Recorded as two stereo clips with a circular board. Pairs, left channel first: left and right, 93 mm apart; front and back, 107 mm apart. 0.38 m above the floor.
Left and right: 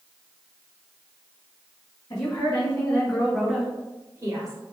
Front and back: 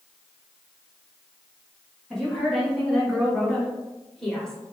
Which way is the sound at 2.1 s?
90° left.